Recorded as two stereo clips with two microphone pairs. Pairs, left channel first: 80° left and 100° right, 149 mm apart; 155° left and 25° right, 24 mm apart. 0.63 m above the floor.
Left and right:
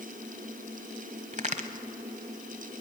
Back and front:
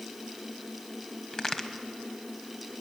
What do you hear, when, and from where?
1.3 s a crack: 140° right, 1.1 m